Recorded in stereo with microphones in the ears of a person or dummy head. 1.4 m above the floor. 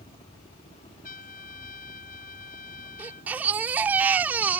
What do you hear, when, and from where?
0.0 s a helicopter: 25° left (ahead or behind); by 4.6 s 35° left (ahead or behind)
1.0 s a trumpet: 40° left (ahead or behind)
3.0 s a baby crying: 15° right (ahead or behind)